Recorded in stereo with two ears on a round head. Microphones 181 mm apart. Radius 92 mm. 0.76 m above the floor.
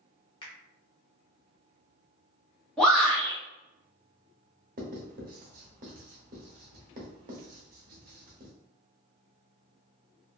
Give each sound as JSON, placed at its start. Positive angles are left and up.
{"t": 0.4, "sound": "a finger snap", "side_deg": 25, "distance_m": 0.8}
{"t": 2.8, "sound": "a shout", "side_deg": 5, "distance_m": 1.8}
{"t": 4.8, "sound": "writing", "side_deg": -40, "distance_m": 0.8}